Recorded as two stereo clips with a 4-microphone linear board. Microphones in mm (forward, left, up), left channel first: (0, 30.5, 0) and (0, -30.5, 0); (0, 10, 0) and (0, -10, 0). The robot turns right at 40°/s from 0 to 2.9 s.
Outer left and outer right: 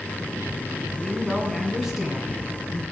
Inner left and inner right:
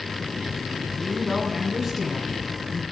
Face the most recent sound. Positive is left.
turn(degrees=-135)